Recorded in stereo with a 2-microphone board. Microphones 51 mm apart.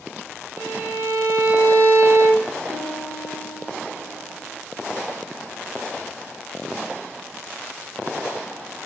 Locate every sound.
0.6 s a violin: 55° right (ahead or behind), 1.3 m
2.7 s a piano: 55° right (ahead or behind), 2.5 m